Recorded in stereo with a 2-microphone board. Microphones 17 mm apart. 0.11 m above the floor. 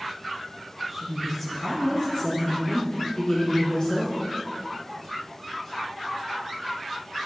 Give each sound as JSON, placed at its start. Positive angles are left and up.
{"t": 0.9, "sound": "a woman speaking", "side_deg": -5, "distance_m": 1.3}